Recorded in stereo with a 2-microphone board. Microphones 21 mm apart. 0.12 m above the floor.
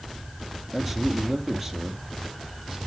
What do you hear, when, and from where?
0.7 s a man speaking: centre (ahead or behind), 3 m; by 2.8 s 10° right (ahead or behind), 3.5 m